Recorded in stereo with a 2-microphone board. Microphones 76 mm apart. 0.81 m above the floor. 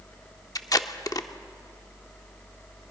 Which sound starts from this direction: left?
Tape being pulled, at 0.6 s.